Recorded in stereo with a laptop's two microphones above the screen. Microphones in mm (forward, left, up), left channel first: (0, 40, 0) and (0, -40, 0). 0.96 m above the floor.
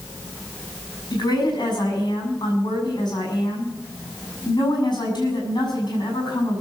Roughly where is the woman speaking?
Left.